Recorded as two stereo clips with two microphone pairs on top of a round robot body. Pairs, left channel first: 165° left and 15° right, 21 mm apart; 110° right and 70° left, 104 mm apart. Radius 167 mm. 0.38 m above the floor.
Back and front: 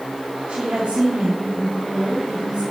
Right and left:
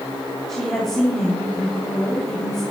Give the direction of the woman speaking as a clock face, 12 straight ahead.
1 o'clock.